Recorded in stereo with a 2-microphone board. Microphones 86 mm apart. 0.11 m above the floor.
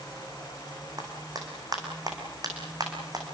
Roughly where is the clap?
Right.